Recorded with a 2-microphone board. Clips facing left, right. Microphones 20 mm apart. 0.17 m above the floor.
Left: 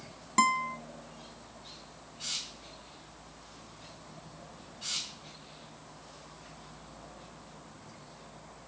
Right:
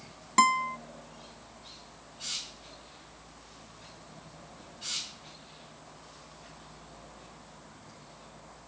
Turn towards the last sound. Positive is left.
turn(degrees=-20)  # may be behind; listen again after turning